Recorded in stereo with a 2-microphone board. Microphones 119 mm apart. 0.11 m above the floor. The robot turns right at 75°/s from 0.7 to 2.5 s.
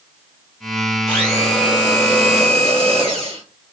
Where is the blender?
175° right, 2.5 m; by 3.4 s 65° right, 2.5 m.